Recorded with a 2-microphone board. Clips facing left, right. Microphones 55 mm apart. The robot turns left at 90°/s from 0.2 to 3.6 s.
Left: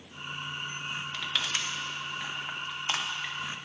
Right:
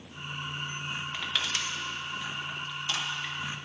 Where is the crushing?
20° right (ahead or behind), 1.2 m; by 3.3 s centre (ahead or behind), 1.2 m.